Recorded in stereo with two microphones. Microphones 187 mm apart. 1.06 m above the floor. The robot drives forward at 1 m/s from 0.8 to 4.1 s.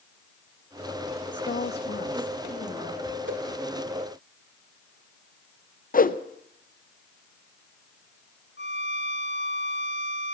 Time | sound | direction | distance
1.3 | a woman speaking | 80° left | 1.3 m
3.3 | a whoosh | 80° right | 2 m
5.9 | a whoosh | 50° left (ahead or behind) | 0.6 m
8.6 | a violin | 75° left (ahead or behind) | 0.7 m